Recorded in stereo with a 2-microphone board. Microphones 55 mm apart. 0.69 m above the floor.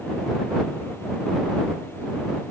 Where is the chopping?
No chopping in this recording.